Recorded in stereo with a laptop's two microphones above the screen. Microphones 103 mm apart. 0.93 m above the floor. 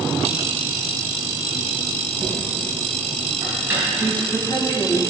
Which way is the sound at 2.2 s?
20° right (ahead or behind).